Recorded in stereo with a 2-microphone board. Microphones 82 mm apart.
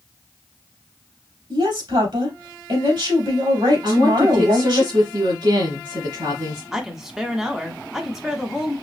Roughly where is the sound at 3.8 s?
Right.